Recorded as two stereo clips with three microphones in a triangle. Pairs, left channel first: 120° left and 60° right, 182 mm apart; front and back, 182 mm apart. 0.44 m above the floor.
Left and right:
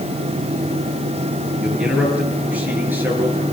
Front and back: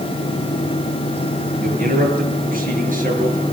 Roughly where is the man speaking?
Behind right.